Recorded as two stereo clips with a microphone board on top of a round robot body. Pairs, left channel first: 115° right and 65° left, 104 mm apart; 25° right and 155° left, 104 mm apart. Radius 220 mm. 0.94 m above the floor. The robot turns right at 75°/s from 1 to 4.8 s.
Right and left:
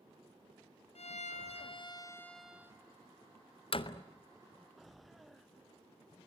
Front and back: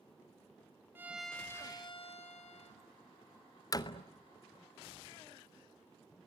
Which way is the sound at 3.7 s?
80° right.